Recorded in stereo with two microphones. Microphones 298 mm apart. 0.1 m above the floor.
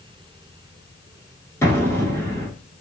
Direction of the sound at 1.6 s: 10° left (ahead or behind).